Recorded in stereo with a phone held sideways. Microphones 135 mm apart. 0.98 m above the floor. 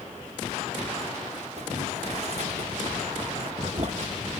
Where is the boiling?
50° right (ahead or behind), 0.9 m.